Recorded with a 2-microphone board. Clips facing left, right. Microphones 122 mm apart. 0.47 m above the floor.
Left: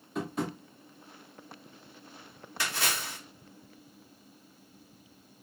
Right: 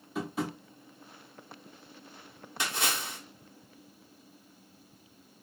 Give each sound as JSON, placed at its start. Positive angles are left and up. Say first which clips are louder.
{"t": 0.1, "sound": "tapping", "louder": "even", "side_deg": -5, "distance_m": 1.2}
{"t": 2.6, "sound": "a splash", "louder": "right 1 dB", "side_deg": -20, "distance_m": 1.1}